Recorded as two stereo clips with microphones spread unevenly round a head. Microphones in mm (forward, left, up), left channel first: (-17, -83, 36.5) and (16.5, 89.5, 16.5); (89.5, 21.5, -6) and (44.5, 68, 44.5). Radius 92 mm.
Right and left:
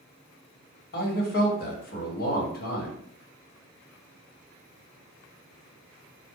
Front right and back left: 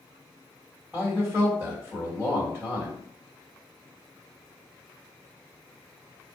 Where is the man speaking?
130° right, 1.6 m.